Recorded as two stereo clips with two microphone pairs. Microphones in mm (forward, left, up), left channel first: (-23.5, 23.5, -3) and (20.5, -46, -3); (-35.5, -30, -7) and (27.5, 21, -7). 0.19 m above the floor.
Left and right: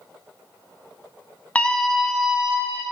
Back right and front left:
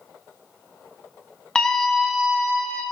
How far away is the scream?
About 1.3 m.